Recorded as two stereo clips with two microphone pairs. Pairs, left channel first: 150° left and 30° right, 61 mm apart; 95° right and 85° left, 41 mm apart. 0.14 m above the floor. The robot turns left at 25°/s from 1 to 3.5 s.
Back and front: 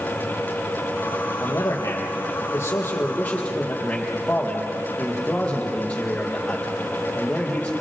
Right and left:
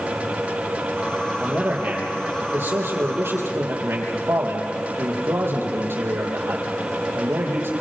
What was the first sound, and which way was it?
A man speaking, 135° left.